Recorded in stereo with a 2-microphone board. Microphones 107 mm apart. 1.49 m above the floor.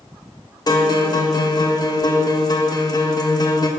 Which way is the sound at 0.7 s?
40° left (ahead or behind).